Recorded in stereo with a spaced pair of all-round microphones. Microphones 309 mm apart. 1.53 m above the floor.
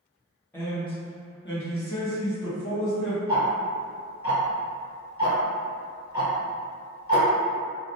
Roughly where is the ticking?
Left.